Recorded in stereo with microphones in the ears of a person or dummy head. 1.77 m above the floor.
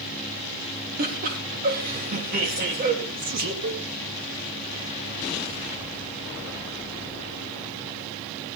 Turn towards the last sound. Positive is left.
turn(degrees=-75)  # may be behind; listen again after turning